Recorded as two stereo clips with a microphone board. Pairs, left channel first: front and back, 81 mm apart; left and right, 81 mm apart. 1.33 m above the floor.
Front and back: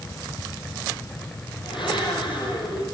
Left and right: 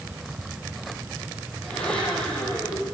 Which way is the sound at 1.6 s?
10° left.